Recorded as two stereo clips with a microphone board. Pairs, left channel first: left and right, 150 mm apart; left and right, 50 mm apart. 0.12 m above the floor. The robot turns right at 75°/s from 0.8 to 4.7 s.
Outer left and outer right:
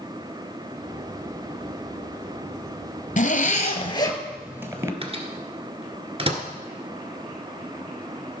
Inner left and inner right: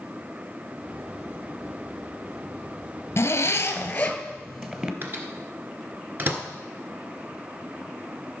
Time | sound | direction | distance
3.2 | a zipper | 85° left | 1.1 m
5.0 | a microwave | 40° right (ahead or behind) | 1.6 m